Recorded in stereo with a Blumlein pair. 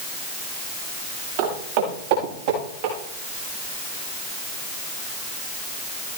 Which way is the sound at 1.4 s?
50° right.